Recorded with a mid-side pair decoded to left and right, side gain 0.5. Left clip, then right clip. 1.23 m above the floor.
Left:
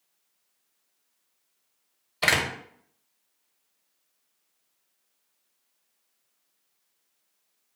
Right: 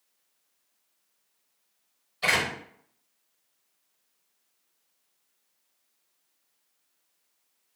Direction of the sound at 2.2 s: 70° left.